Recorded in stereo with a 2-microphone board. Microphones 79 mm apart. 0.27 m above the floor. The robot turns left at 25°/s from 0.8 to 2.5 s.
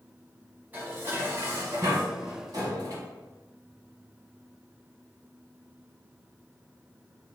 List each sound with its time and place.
0.7 s dishes clattering: 30° right, 1.5 m; by 3.0 s 70° right, 1.5 m